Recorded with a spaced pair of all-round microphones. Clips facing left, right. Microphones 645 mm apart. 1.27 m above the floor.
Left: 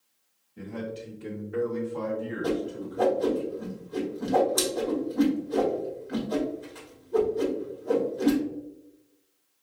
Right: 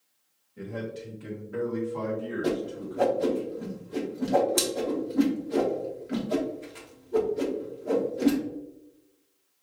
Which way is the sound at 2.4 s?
55° right (ahead or behind).